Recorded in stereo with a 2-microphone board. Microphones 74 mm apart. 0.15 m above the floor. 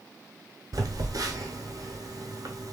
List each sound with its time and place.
0.7 s a phone buzzing: 60° right (ahead or behind), 0.6 m